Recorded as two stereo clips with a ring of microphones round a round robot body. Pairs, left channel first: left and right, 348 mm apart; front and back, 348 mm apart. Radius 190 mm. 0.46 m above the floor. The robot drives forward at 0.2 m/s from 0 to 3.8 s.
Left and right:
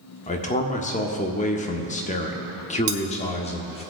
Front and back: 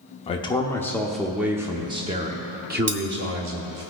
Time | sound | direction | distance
0.3 | a man speaking | 50° left | 0.7 m
2.9 | cutlery clinking | 130° right | 0.8 m